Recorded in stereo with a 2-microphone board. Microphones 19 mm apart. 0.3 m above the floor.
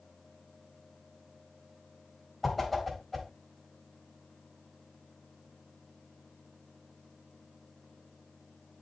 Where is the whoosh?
15° left (ahead or behind), 3 m.